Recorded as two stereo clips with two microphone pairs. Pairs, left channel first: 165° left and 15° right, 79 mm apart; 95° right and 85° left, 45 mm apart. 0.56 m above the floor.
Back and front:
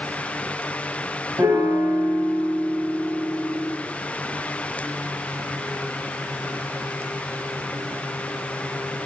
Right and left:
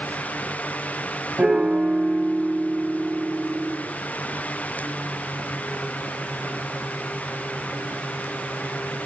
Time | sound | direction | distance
1.4 | a piano | 25° left | 0.8 m